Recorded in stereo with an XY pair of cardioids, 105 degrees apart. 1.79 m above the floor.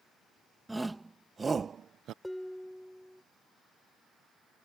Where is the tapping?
I don't hear tapping.